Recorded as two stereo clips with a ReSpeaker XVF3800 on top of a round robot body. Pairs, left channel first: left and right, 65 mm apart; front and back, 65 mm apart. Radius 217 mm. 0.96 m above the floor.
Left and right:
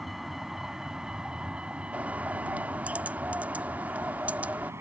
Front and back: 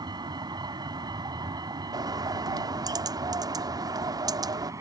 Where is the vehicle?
175° right; by 4.8 s 145° right.